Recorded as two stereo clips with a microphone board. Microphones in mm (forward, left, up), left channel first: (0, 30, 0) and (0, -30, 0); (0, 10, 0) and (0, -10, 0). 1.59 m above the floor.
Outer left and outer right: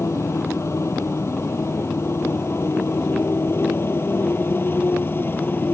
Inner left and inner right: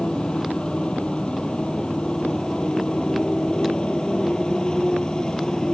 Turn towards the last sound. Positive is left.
turn(degrees=40)  # may be behind; listen again after turning